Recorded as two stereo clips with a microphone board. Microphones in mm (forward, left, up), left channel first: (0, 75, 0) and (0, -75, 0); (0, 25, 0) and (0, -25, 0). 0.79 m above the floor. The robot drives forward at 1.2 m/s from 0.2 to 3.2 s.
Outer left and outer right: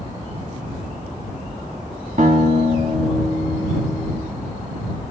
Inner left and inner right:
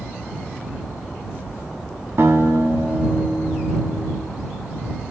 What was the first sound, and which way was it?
A guitar, 55° right (ahead or behind).